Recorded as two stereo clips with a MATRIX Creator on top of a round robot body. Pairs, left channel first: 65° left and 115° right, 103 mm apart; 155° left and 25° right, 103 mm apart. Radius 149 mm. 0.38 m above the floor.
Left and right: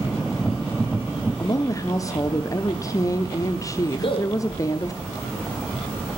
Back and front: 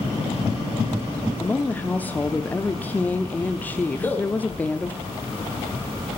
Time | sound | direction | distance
1.4 | a woman speaking | 95° left | 0.9 m
4.0 | a man speaking | 85° left | 1.6 m